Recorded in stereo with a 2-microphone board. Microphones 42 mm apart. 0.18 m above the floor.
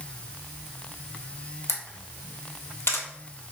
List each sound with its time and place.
1.7 s a camera shutter: 70° left (ahead or behind), 1.1 m